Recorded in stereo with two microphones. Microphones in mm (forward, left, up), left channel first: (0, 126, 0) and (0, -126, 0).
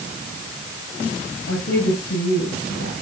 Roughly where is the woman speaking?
Left.